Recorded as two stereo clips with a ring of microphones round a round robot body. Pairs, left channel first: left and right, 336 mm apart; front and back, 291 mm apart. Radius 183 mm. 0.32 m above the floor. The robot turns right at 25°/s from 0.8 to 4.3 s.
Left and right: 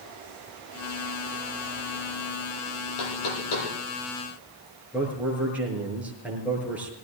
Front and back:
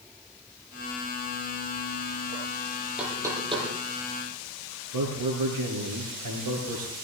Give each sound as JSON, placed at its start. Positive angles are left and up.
{"t": 3.0, "sound": "knocking", "azimuth_deg": 95, "distance_m": 9.5}
{"t": 4.9, "sound": "a man speaking", "azimuth_deg": -175, "distance_m": 6.5}